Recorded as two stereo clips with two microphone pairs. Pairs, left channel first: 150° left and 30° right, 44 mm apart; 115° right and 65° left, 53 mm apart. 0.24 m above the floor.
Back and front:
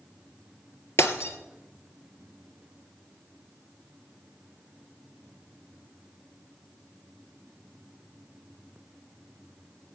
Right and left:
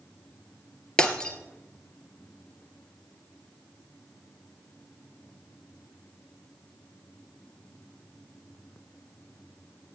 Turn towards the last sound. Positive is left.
turn(degrees=170)